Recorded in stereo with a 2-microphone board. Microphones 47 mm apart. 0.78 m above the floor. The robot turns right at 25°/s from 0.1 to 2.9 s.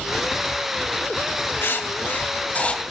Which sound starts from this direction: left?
Writing, at 1.6 s.